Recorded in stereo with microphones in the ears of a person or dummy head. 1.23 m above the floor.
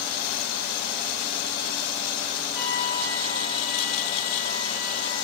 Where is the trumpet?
45° left (ahead or behind), 6.5 m.